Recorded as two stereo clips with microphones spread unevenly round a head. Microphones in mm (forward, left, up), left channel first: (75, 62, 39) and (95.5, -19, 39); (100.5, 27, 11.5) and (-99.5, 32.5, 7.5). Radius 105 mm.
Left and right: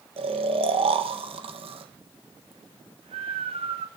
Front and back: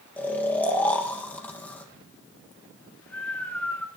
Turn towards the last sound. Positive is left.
turn(degrees=-85)